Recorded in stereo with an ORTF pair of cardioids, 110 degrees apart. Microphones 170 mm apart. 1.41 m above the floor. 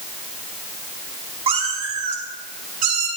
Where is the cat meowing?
40° right, 3 m; by 3.1 s 60° right, 5 m.